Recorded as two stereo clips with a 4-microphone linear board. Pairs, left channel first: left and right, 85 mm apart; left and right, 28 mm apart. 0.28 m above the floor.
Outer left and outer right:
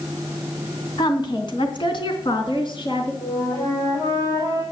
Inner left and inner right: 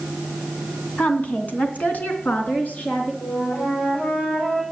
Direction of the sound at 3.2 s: 75° left (ahead or behind).